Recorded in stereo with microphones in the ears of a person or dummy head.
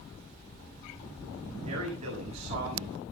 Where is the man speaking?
40° right (ahead or behind), 7.5 m.